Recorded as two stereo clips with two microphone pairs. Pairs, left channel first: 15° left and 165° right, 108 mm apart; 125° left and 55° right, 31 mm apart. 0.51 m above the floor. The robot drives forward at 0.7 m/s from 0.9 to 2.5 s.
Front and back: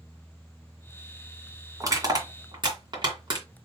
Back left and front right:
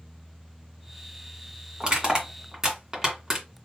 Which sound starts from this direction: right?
Crushing, at 1.8 s.